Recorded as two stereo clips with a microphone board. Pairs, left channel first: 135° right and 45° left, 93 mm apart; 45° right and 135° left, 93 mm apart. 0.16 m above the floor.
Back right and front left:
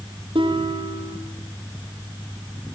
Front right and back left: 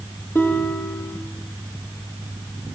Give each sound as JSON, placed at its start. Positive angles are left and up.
{"t": 0.3, "sound": "a guitar", "azimuth_deg": 20, "distance_m": 6.0}